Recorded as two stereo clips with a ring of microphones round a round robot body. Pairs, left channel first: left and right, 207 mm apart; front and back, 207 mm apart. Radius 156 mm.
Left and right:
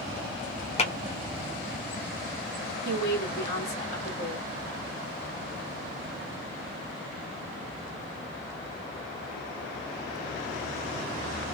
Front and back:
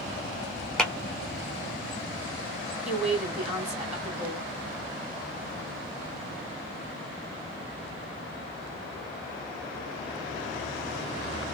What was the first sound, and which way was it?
A clap, 85° left.